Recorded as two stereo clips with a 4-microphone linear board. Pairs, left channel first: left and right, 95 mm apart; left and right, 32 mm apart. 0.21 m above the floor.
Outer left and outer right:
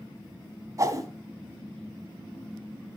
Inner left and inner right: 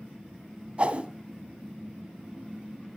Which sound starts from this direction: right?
A whoosh, at 0.8 s.